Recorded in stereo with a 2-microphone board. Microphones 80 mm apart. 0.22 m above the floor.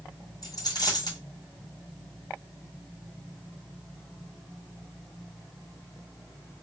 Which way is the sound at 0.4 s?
55° left (ahead or behind).